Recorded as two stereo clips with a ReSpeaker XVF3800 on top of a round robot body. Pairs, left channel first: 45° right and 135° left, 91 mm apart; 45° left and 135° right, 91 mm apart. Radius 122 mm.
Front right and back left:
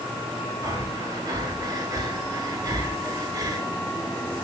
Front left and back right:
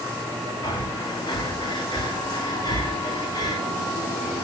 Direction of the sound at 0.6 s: 85° left.